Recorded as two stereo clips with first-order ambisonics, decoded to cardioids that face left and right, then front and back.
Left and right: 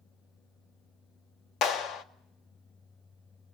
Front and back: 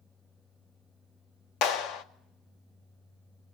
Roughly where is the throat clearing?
No throat clearing in this recording.